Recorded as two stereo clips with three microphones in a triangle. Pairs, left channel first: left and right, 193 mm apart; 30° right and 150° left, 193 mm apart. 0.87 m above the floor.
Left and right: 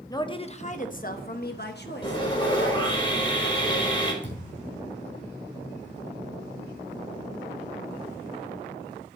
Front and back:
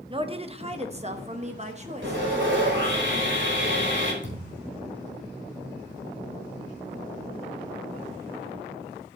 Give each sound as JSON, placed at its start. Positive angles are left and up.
{"t": 0.1, "sound": "a woman speaking", "azimuth_deg": 135, "distance_m": 0.7}
{"t": 2.0, "sound": "sawing", "azimuth_deg": 150, "distance_m": 3.5}
{"t": 4.2, "sound": "a thud", "azimuth_deg": 135, "distance_m": 5.0}